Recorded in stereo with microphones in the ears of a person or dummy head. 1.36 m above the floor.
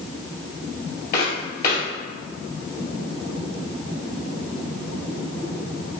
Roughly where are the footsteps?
Left.